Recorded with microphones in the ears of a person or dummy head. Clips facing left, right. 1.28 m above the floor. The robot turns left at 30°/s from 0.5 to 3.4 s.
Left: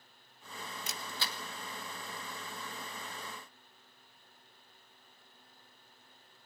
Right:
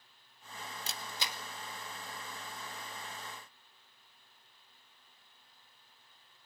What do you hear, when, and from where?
0.9 s a camera shutter: 20° right (ahead or behind), 1.1 m; by 1.4 s 5° right (ahead or behind), 1.1 m